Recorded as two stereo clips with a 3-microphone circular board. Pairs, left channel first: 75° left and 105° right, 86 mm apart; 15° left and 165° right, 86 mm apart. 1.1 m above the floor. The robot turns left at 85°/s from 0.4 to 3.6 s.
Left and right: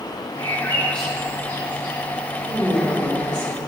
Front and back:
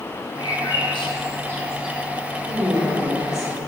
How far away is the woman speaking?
About 2.5 m.